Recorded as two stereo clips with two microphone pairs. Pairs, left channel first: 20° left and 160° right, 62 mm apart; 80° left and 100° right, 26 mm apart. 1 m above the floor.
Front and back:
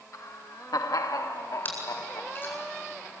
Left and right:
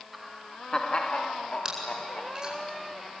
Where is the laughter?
15° right, 0.9 m; by 2.6 s 50° left, 3 m.